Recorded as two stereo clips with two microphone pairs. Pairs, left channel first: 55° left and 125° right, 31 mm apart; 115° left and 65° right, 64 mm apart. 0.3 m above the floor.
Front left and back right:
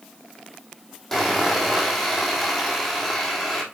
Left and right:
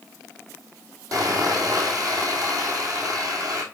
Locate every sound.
1.1 s sawing: 35° right, 2.5 m